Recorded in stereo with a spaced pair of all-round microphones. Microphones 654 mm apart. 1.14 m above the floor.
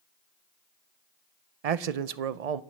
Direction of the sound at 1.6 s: 70° right (ahead or behind).